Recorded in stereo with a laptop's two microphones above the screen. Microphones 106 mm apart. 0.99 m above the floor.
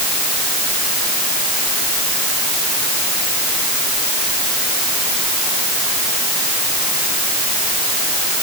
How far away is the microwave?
No microwave in this recording.